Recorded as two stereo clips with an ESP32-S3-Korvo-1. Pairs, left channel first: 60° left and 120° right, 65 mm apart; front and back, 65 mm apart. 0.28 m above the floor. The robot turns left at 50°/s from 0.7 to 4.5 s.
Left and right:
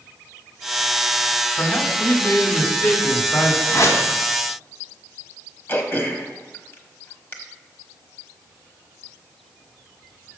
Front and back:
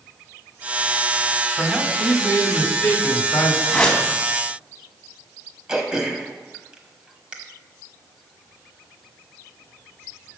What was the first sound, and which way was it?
A man speaking, 135° left.